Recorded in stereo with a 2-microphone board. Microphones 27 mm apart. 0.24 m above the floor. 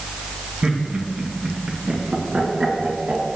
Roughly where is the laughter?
Right.